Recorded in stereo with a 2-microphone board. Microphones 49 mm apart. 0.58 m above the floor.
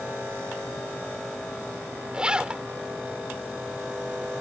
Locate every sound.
2.1 s a zipper: 20° right (ahead or behind)